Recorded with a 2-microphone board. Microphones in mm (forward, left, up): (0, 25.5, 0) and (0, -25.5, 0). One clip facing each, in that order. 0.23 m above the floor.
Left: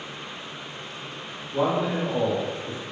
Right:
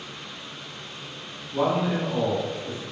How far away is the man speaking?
About 1.8 m.